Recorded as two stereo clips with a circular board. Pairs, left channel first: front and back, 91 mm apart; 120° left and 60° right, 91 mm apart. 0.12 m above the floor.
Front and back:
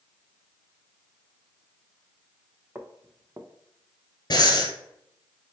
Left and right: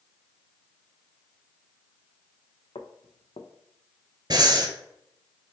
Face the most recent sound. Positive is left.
turn(degrees=-30)